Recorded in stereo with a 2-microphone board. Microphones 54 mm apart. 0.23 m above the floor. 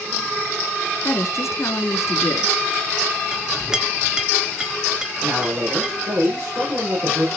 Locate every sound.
1.0 s a woman speaking: 65° left (ahead or behind), 2.5 m
3.3 s a clink: 10° right (ahead or behind), 1.6 m
5.2 s a man speaking: 45° right (ahead or behind), 9.5 m